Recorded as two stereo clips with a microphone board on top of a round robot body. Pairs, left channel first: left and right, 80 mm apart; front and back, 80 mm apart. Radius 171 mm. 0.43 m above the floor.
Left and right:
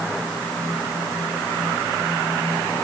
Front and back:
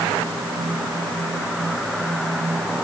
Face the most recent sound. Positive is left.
No sound to turn to.